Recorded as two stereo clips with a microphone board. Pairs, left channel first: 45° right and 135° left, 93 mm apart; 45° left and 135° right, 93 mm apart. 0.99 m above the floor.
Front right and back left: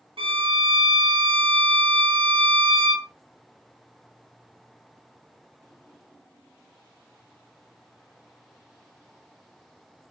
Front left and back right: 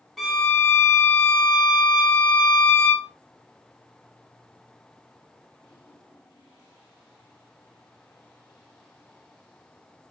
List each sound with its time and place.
0.2 s a violin: 135° left, 0.8 m